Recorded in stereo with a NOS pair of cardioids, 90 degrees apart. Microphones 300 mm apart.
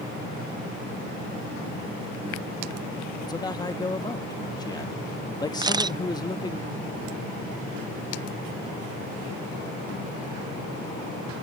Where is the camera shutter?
15° right.